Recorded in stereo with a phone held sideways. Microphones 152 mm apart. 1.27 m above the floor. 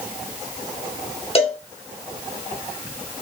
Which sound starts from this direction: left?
A cowbell, at 1.4 s.